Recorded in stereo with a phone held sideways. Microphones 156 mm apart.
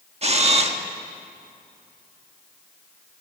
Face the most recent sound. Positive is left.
turn(degrees=-40)  # may be behind; listen again after turning